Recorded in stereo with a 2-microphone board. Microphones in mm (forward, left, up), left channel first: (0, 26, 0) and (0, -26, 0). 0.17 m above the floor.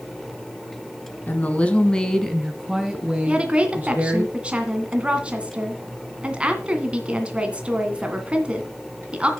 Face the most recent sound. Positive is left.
turn(degrees=-20)  # may be behind; listen again after turning